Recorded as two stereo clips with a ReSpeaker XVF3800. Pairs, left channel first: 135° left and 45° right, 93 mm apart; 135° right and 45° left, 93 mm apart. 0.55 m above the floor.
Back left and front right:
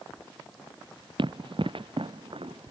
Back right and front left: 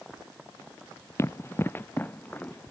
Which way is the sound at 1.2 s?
75° right.